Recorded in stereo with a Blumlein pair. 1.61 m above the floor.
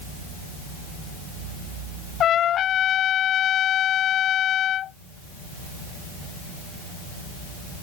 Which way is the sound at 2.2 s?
30° left.